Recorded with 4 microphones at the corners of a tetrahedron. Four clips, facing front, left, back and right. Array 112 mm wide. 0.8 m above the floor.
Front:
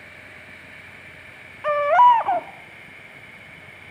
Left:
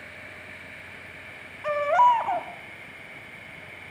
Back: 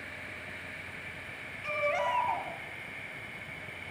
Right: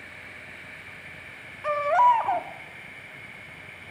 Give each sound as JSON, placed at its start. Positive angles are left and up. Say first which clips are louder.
{"t": 1.6, "sound": "a baby crying", "louder": "even, front 17 dB", "azimuth_deg": -5, "distance_m": 1.5}